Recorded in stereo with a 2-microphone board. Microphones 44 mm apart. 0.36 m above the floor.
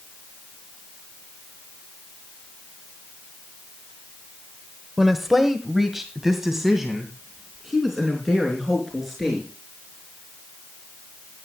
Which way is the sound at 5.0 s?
5° right (ahead or behind).